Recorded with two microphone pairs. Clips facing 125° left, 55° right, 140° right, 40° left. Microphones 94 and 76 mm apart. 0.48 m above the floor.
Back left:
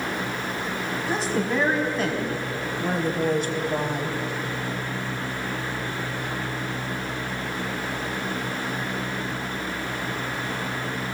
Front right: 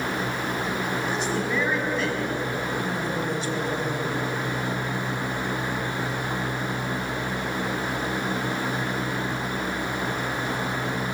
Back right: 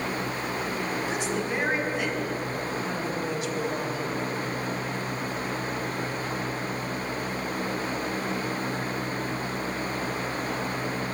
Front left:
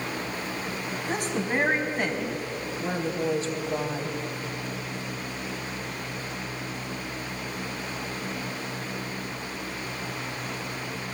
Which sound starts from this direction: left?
A woman speaking, at 1.1 s.